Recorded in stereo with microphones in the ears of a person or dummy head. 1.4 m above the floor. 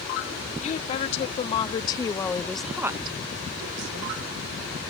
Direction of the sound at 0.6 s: 40° left (ahead or behind).